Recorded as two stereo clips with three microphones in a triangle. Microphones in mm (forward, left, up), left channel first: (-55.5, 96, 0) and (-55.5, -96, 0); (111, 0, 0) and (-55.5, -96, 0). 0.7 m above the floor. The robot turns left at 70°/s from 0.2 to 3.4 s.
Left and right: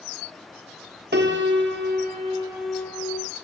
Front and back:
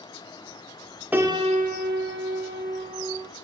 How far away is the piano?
About 0.7 m.